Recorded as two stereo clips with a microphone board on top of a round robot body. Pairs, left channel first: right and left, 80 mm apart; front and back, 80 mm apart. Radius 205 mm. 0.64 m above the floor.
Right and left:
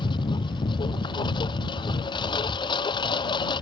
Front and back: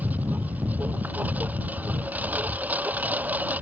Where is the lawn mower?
110° right.